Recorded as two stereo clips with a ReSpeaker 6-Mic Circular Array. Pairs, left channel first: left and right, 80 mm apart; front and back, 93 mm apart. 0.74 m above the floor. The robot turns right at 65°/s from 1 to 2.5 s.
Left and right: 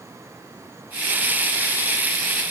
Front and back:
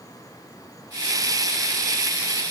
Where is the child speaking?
I don't hear a child speaking.